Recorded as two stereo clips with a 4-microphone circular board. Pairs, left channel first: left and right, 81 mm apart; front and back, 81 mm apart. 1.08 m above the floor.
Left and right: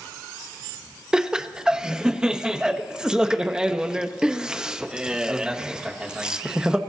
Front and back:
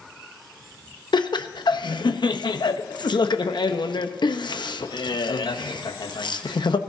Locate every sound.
1.1 s laughter: 10° right, 0.9 m